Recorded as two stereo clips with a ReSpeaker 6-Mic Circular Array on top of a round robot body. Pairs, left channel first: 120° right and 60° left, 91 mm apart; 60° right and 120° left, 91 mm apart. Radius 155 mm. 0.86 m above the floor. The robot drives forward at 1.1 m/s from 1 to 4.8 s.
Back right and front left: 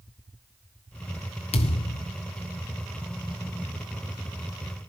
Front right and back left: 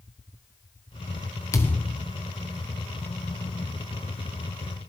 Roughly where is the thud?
Behind right.